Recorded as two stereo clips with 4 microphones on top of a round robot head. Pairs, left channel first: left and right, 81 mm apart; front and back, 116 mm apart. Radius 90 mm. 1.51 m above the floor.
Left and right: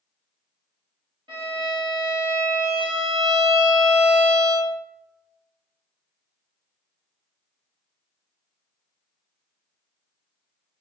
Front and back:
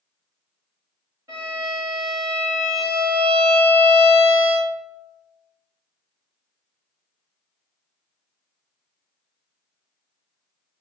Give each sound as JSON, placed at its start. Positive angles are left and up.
{"t": 1.3, "sound": "a violin", "azimuth_deg": -110, "distance_m": 1.6}